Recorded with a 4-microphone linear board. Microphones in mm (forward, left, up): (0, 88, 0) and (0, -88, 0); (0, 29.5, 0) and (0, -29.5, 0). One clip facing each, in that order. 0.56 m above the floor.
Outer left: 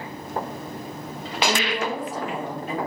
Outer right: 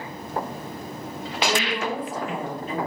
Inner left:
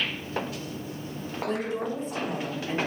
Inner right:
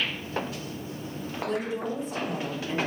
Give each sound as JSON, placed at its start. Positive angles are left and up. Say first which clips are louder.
{"t": 1.5, "sound": "a woman speaking", "louder": "even, inner left 1 dB", "side_deg": 60, "distance_m": 1.8}